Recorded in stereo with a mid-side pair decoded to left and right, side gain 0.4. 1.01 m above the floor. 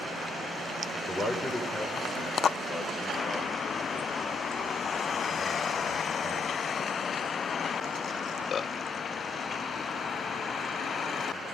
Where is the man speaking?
20° left, 3 m; by 6.5 s 40° left, 5.5 m.